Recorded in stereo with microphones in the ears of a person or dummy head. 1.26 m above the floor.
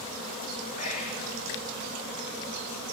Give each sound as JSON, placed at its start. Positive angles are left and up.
{"t": 0.8, "sound": "whispering", "side_deg": 40, "distance_m": 2.5}